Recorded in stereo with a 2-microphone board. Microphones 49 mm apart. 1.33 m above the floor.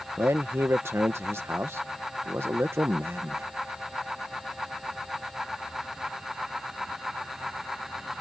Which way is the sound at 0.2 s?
60° right (ahead or behind).